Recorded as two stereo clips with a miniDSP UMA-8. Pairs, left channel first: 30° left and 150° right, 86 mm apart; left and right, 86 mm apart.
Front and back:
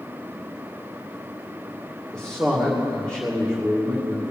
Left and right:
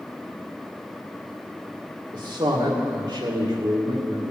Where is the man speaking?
50° right, 2.5 m.